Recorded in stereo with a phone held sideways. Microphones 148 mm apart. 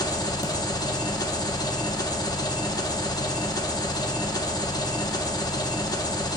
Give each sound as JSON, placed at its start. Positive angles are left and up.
{"t": 0.0, "sound": "an engine running", "side_deg": 25, "distance_m": 0.8}